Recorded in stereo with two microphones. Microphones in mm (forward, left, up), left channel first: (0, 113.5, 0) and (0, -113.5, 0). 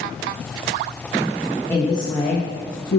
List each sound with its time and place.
1.7 s a woman speaking: 10° left (ahead or behind), 1.4 m; by 3.0 s 60° left (ahead or behind), 0.8 m